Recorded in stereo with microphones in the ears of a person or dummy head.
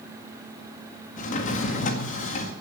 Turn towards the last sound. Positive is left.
turn(degrees=45)  # may be behind; listen again after turning